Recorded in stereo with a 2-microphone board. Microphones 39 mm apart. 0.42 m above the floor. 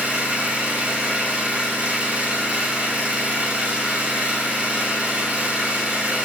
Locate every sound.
0.0 s an engine running: 30° right (ahead or behind), 5 m